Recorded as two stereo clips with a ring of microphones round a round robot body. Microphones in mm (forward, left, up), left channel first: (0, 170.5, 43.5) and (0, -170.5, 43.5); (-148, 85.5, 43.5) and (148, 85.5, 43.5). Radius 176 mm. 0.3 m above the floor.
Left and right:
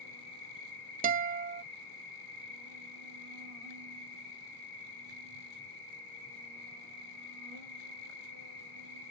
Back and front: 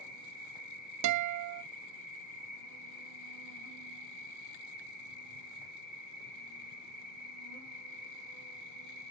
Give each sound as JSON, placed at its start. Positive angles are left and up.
{"t": 0.0, "sound": "an insect", "azimuth_deg": 175, "distance_m": 3.5}
{"t": 1.0, "sound": "a guitar", "azimuth_deg": -25, "distance_m": 0.6}